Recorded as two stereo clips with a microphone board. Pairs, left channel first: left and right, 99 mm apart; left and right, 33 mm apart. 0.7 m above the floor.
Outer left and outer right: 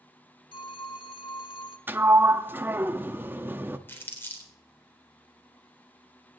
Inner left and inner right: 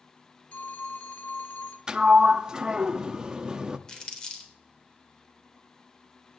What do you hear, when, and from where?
0.5 s a phone ringing: 60° left (ahead or behind), 1.1 m
1.9 s a sliding door: 20° right (ahead or behind), 0.7 m
3.9 s crumpling: 20° left (ahead or behind), 3.5 m